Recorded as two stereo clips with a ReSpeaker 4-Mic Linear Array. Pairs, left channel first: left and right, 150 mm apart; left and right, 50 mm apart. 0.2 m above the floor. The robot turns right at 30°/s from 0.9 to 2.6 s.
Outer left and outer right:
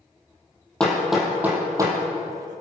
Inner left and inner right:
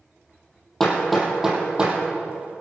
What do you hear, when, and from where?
0.8 s hammering: 5° left (ahead or behind), 3.5 m; by 2.0 s 25° right (ahead or behind), 3.5 m